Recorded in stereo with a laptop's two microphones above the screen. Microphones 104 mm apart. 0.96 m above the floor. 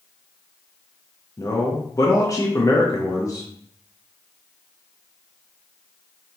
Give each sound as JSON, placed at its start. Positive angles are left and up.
{"t": 1.4, "sound": "a man speaking", "side_deg": 35, "distance_m": 0.8}